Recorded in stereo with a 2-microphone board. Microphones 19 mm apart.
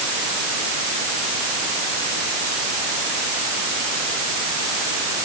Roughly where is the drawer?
I don't hear a drawer.